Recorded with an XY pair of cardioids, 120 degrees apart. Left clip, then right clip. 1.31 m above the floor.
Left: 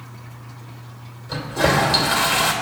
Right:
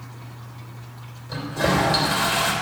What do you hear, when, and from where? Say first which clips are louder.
1.3 s a toilet flushing: left 3 dB; 35° left, 3 m